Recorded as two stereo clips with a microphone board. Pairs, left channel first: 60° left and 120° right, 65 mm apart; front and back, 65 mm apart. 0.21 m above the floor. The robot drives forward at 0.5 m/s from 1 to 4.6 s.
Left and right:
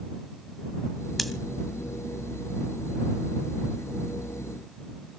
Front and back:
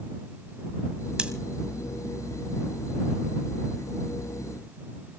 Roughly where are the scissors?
Behind left.